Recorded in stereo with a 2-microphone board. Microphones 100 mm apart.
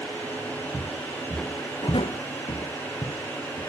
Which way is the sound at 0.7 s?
10° right (ahead or behind).